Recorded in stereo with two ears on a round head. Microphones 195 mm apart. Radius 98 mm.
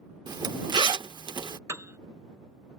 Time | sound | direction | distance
0.3 | a zipper | 20° right (ahead or behind) | ?
1.7 | a piano | 15° right (ahead or behind) | ?